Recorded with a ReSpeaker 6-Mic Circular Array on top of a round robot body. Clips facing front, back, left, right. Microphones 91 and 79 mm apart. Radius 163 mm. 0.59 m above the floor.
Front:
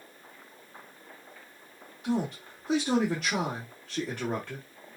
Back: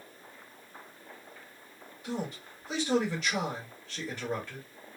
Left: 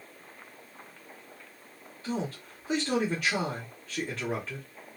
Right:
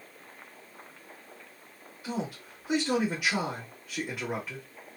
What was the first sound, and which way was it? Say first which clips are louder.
A man speaking: front 6 dB, left 1 dB; 10° right.